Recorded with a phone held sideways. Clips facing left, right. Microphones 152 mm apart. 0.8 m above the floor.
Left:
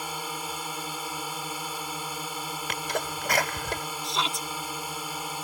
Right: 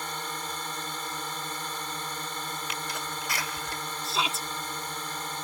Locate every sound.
0.0 s a drone: 10° left (ahead or behind)
2.7 s a sneeze: 65° left (ahead or behind)
4.0 s a shout: 5° right (ahead or behind)